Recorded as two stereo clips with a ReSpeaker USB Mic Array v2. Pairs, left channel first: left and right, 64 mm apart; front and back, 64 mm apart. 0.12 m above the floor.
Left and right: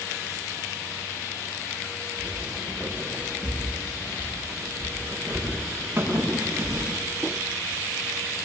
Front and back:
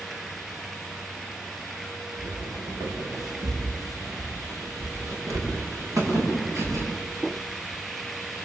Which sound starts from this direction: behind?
Footsteps, at 2.2 s.